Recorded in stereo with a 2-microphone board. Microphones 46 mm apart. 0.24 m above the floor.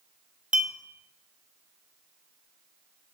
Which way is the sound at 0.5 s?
25° right (ahead or behind).